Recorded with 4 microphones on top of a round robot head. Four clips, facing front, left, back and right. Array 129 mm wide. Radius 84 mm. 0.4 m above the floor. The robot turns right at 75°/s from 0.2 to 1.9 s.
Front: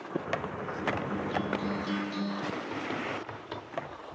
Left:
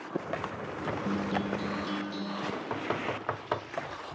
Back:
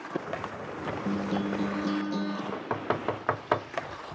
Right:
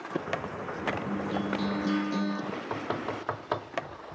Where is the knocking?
175° right, 1.1 m.